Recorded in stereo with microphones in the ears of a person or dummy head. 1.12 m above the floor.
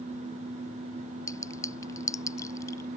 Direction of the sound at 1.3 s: 15° left (ahead or behind).